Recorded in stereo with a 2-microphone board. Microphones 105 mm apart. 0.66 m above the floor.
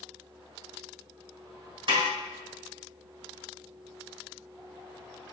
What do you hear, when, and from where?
1.9 s a snare drum: 55° right (ahead or behind), 3 m